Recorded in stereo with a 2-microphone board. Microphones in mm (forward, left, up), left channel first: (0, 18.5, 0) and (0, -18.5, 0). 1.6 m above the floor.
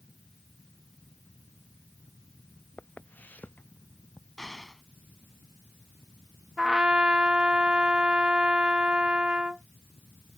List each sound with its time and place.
2.8 s footsteps: 45° left (ahead or behind); by 4.3 s 40° left (ahead or behind)
4.4 s an explosion: centre (ahead or behind)
6.6 s a trumpet: 25° right (ahead or behind)